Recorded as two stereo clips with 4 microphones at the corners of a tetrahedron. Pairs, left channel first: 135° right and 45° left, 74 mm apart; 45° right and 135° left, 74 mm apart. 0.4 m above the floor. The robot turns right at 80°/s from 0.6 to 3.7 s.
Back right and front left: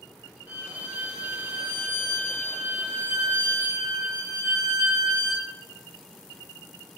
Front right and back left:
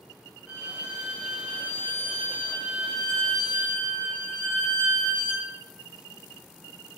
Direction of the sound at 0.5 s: 45° left.